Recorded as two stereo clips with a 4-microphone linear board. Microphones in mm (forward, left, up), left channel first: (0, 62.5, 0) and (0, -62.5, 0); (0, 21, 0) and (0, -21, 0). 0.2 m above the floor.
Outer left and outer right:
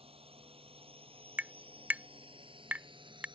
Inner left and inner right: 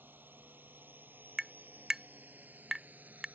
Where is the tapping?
15° right (ahead or behind).